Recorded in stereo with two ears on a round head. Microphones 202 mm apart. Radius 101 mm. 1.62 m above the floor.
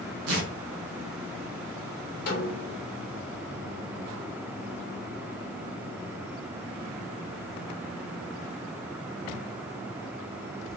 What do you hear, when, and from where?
0.3 s tearing paper: 70° right (ahead or behind), 1.2 m
2.3 s a snare drum: 45° left (ahead or behind), 1.4 m